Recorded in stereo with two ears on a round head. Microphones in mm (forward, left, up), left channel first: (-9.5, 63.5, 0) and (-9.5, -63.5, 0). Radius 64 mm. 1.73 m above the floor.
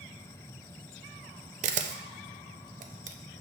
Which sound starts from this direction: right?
A camera shutter, at 1.6 s.